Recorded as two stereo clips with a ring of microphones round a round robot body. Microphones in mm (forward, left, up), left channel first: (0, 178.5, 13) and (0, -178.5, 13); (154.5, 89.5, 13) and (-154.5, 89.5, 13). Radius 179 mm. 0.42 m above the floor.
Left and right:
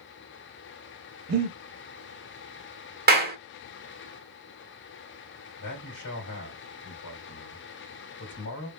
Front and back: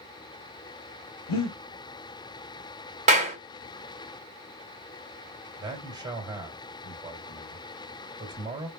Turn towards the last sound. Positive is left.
turn(degrees=105)